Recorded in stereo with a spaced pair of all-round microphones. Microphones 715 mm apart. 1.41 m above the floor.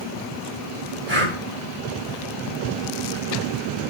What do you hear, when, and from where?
1.1 s breathing: 50° right (ahead or behind), 7 m